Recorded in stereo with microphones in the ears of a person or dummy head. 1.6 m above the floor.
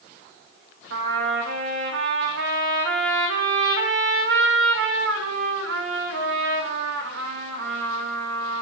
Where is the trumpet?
75° right (ahead or behind), 2 m.